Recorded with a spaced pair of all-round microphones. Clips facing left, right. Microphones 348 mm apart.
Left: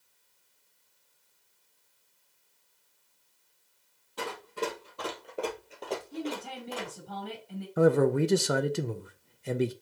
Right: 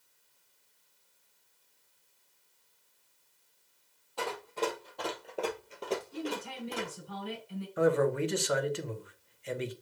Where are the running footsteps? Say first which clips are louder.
Even; 25° left (ahead or behind), 1.9 m; by 7.0 s 35° right (ahead or behind), 1.5 m.